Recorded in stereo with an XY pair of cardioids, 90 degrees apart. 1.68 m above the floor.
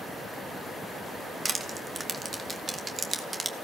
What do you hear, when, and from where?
1.4 s crushing: 30° right, 1.8 m